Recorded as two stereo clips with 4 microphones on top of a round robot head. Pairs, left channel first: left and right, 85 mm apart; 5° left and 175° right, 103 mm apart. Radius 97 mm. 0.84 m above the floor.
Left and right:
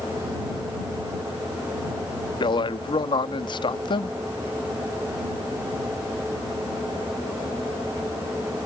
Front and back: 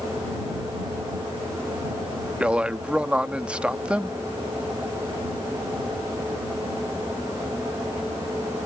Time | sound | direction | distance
2.4 | a man speaking | 105° left | ?